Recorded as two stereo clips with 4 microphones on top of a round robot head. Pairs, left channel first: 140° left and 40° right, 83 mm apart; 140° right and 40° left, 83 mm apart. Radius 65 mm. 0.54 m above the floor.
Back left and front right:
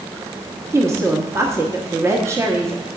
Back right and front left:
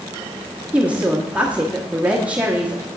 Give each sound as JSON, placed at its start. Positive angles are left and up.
{"t": 0.7, "sound": "a woman speaking", "azimuth_deg": -25, "distance_m": 1.1}